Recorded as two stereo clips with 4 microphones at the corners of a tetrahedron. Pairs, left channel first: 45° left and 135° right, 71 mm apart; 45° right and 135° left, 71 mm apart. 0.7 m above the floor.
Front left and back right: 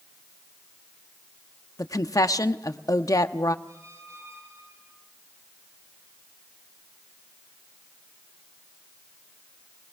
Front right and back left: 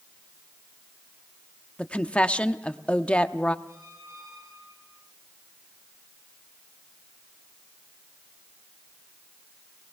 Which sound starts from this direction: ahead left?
A woman speaking, at 1.8 s.